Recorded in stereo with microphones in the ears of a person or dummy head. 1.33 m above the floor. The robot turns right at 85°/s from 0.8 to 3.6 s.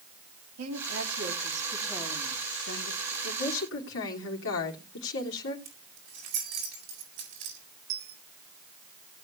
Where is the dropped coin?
70° right (ahead or behind), 4.5 m.